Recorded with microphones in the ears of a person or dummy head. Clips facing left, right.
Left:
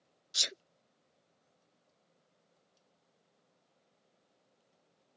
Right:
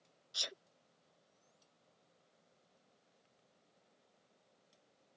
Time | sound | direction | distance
0.3 | a sneeze | 25° left (ahead or behind) | ?